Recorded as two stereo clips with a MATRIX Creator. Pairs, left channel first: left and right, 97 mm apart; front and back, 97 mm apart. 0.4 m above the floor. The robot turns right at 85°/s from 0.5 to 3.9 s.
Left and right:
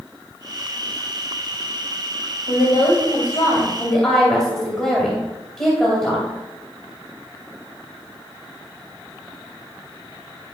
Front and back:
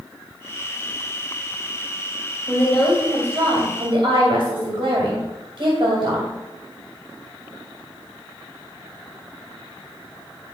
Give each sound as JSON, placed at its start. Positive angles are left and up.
{"t": 2.5, "sound": "a woman speaking", "azimuth_deg": 55, "distance_m": 2.5}